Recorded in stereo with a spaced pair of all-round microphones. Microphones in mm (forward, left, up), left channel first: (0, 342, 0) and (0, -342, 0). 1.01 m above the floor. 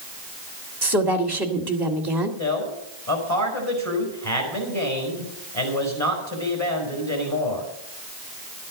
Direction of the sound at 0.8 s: 35° right (ahead or behind).